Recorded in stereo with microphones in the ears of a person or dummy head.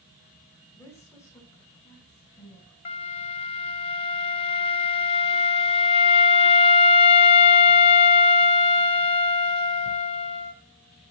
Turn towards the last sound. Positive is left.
turn(degrees=35)  # may be behind; listen again after turning